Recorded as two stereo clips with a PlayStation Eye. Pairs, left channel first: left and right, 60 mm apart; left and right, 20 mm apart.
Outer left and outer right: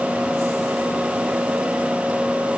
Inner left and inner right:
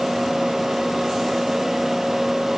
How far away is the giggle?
No giggle in this recording.